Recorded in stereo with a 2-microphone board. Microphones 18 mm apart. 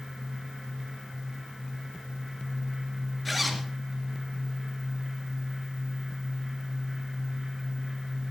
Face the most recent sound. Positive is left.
turn(degrees=0)  # may be behind; listen again after turning